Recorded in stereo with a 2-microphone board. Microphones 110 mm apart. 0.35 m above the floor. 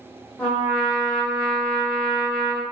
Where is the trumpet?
10° left (ahead or behind), 1.2 m.